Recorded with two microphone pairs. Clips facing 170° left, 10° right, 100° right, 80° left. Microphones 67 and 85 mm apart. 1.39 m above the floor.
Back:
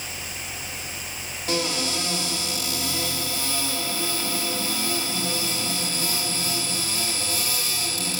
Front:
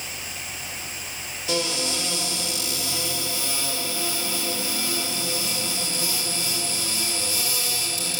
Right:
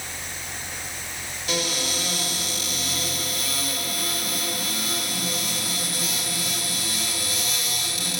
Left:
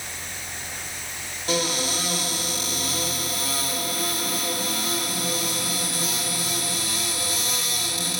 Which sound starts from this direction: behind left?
A cupboard door, at 1.5 s.